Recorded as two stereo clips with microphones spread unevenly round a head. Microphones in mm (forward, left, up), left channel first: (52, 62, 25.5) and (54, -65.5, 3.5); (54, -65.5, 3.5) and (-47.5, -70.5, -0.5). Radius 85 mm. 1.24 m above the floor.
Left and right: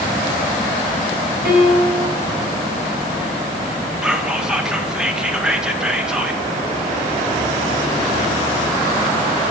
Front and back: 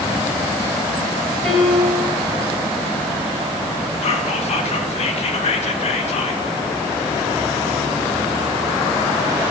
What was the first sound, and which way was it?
A piano, 80° right.